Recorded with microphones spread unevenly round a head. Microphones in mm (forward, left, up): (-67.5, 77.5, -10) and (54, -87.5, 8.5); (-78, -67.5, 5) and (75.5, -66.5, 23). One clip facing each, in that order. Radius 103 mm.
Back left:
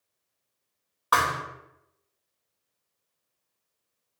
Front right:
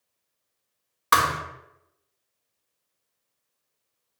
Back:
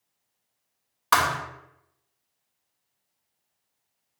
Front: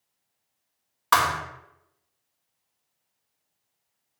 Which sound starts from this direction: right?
A thud, at 1.1 s.